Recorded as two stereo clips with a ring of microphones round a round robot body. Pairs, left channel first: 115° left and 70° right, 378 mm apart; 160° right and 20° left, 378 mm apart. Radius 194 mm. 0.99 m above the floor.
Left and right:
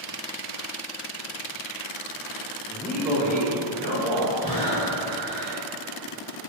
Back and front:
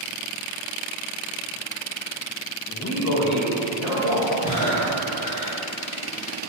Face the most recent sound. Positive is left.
turn(degrees=130)